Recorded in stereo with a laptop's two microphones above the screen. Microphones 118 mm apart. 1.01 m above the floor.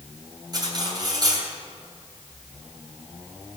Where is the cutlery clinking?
35° right (ahead or behind), 3 m.